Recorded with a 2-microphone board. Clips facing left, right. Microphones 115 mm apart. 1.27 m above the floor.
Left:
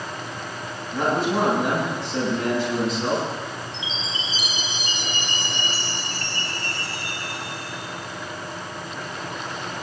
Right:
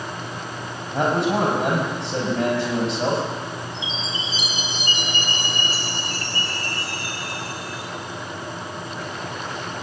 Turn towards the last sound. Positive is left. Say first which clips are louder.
# right 2 dB
turn(degrees=-5)  # may be behind; listen again after turning